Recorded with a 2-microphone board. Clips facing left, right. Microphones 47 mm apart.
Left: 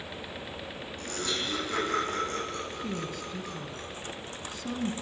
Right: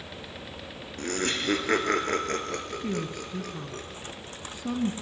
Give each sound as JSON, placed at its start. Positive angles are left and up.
{"t": 1.0, "sound": "laughter", "side_deg": -55, "distance_m": 3.5}
{"t": 2.8, "sound": "a woman speaking", "side_deg": -15, "distance_m": 1.5}